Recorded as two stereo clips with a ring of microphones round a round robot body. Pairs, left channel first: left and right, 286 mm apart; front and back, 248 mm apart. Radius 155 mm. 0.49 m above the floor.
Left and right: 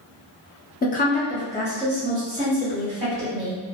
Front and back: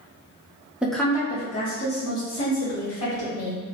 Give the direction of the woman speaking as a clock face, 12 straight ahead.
9 o'clock.